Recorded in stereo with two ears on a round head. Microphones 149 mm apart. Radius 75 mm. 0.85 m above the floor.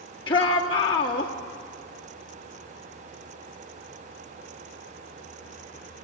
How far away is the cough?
No cough in this recording.